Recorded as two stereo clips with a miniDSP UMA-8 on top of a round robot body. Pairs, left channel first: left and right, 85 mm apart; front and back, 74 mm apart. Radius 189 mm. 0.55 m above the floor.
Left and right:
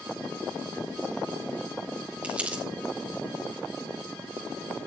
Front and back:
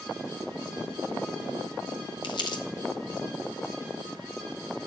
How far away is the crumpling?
About 1.0 m.